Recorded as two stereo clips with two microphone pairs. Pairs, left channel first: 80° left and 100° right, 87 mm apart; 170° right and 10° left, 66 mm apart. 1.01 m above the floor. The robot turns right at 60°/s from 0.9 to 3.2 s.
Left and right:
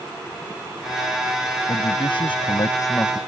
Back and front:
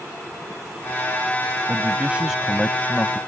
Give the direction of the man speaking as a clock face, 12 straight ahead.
10 o'clock.